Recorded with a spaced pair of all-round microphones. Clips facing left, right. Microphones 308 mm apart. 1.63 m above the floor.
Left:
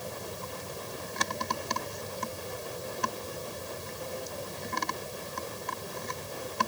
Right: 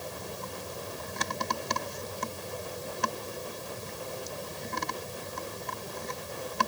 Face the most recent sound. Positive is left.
No sound to turn to.